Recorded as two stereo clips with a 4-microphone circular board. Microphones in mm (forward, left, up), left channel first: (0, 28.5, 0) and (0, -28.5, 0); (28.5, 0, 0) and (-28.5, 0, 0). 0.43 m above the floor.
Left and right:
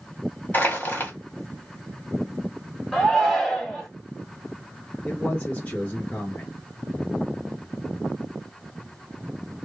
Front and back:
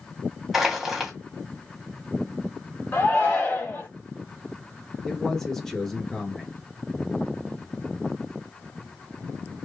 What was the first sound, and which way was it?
Crushing, 95° left.